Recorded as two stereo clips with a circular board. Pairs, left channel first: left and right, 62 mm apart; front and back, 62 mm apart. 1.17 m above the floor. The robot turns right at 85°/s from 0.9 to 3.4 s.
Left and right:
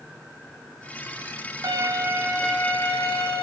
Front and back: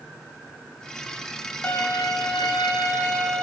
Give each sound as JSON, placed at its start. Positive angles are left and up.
{"t": 1.6, "sound": "a violin", "azimuth_deg": -65, "distance_m": 0.7}